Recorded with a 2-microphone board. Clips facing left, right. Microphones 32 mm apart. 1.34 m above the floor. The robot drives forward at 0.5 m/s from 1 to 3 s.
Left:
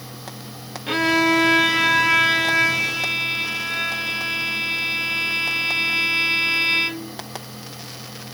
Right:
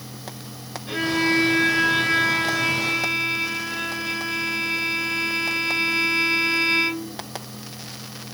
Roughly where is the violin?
Left.